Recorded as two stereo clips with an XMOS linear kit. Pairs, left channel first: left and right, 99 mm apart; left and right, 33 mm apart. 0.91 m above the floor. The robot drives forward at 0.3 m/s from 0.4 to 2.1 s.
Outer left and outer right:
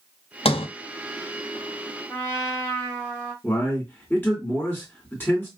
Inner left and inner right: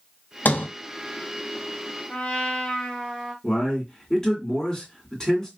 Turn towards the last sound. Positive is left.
turn(degrees=15)  # may be behind; listen again after turning